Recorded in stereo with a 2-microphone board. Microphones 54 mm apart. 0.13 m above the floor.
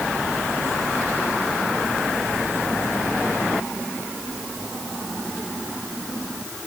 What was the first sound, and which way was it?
Only background noise.